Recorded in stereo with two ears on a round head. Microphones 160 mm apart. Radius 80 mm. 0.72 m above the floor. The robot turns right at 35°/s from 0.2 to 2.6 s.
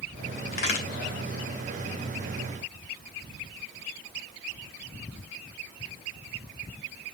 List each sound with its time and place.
0.5 s a crack: 55° left (ahead or behind), 2.5 m; by 0.8 s 45° left (ahead or behind), 2.5 m